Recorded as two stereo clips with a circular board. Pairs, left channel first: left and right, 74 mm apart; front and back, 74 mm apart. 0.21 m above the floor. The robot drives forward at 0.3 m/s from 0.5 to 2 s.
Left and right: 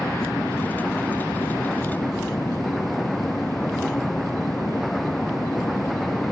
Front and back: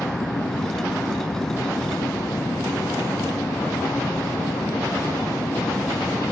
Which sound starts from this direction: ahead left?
An aircraft, at 0.0 s.